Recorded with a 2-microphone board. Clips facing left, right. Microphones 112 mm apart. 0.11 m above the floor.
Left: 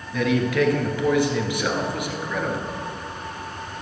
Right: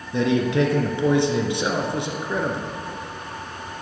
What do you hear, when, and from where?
0.1 s a man speaking: 25° right (ahead or behind), 1.9 m